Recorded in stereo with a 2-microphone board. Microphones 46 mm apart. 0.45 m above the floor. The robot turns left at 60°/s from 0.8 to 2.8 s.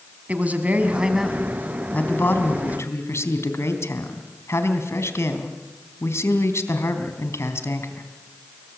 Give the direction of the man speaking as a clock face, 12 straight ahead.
5 o'clock.